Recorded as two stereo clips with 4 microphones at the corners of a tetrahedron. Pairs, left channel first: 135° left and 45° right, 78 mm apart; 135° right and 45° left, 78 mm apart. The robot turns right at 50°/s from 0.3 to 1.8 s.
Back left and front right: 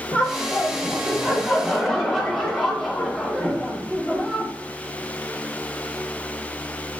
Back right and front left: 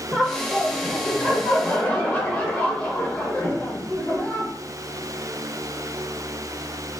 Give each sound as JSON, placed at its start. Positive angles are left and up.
{"t": 0.1, "sound": "laughter", "azimuth_deg": 135, "distance_m": 1.0}